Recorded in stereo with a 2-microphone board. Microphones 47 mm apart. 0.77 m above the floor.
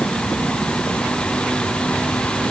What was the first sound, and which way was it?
Only background noise.